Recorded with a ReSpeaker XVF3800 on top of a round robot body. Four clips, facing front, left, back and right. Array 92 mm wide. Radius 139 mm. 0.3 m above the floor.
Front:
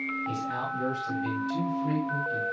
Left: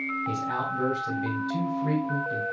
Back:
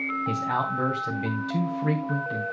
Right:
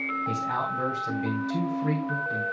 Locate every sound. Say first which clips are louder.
0.3 s a man speaking: right 1 dB, back 5 dB; 175° right, 3 m